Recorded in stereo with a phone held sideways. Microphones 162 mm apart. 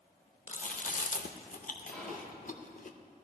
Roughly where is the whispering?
Centre.